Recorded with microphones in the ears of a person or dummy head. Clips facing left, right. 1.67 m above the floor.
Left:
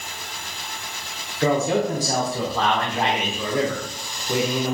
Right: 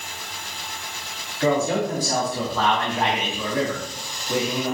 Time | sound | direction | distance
1.4 | a man speaking | 20° left (ahead or behind) | 0.8 m